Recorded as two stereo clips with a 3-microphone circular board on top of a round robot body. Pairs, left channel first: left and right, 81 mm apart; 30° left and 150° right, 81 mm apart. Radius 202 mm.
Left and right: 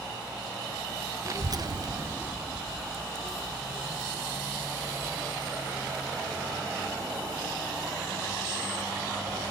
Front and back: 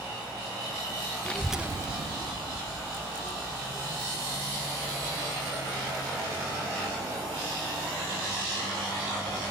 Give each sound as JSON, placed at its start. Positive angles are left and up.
{"t": 1.2, "sound": "a child speaking", "azimuth_deg": -45}